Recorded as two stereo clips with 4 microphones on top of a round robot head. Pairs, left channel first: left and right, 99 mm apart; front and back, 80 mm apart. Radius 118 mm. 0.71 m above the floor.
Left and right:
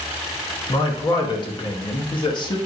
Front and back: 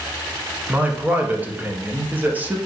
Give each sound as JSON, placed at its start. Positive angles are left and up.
{"t": 0.7, "sound": "a man speaking", "azimuth_deg": 115, "distance_m": 1.0}